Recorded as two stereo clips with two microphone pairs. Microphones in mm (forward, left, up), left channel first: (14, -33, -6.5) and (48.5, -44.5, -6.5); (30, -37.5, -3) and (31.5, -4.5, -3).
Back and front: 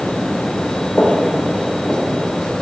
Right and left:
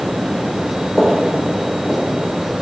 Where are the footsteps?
165° right, 2 m; by 2.0 s 145° right, 2.5 m.